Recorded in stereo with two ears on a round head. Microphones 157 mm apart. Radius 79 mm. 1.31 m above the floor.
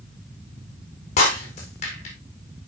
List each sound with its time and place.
1.2 s breaking glass: 40° left (ahead or behind), 3.5 m